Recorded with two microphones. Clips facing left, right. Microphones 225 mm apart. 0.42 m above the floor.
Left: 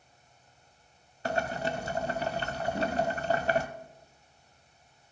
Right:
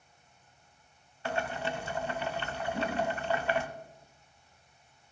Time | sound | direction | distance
1.2 | boiling | 40° left (ahead or behind) | 0.8 m
2.7 | a whoosh | 25° left (ahead or behind) | 7.5 m